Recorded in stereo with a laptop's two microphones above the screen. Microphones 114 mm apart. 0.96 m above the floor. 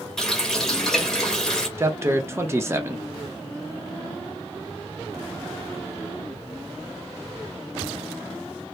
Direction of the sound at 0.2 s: 5° left (ahead or behind).